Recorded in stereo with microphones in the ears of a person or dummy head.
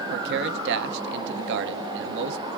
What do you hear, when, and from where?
0.1 s a man speaking: 60° right (ahead or behind), 0.6 m